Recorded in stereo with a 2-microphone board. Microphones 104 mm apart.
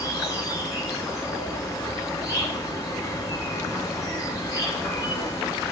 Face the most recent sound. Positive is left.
turn(degrees=35)  # may be behind; listen again after turning